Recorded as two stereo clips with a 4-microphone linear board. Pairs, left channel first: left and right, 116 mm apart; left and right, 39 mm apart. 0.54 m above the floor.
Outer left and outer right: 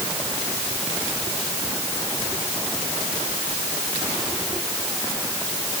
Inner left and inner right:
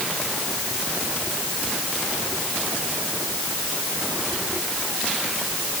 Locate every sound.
Only background noise.